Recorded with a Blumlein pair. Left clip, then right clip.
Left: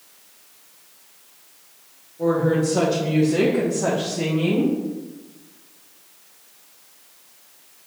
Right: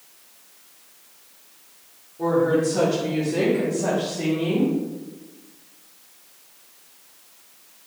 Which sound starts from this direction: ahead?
A woman speaking, at 2.2 s.